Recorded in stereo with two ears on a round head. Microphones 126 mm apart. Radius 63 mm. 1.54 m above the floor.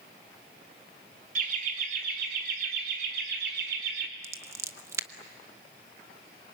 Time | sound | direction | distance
1.4 | laughter | 60° right (ahead or behind) | 3 m
4.2 | scissors | 20° right (ahead or behind) | 1.0 m